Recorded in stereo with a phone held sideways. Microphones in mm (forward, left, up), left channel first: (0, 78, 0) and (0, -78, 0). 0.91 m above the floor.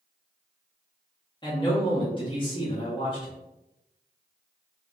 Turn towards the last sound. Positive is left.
turn(degrees=30)  # may be behind; listen again after turning